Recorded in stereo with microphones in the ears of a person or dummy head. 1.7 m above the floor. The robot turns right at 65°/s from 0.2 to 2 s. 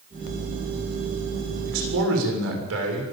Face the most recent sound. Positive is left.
turn(degrees=-90)